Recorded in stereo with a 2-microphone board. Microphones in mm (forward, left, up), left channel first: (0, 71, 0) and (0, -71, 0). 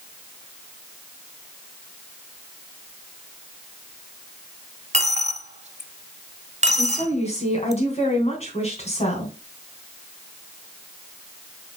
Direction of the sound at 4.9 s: 50° right (ahead or behind).